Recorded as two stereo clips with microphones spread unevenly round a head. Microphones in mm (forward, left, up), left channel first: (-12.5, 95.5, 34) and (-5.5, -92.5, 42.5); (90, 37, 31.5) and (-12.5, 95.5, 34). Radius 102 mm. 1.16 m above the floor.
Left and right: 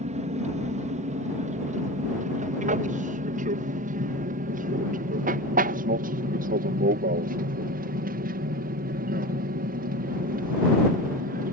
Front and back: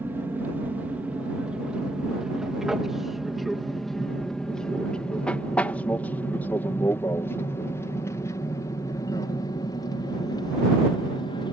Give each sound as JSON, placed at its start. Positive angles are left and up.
{"t": 0.0, "sound": "an aircraft", "azimuth_deg": -135}